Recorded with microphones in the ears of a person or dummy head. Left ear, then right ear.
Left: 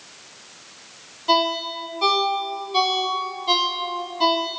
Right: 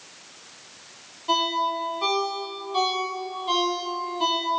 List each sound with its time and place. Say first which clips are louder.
1.3 s a ringtone: left 3 dB; 15° left (ahead or behind), 0.7 m